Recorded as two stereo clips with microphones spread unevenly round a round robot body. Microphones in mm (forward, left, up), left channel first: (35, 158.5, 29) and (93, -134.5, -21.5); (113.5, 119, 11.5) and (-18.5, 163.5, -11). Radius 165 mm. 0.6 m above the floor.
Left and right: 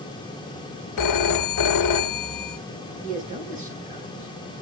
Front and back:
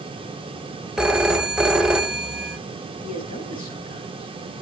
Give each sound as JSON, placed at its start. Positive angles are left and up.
{"t": 1.0, "sound": "a phone ringing", "azimuth_deg": 80, "distance_m": 1.2}
{"t": 3.0, "sound": "a man speaking", "azimuth_deg": -15, "distance_m": 7.0}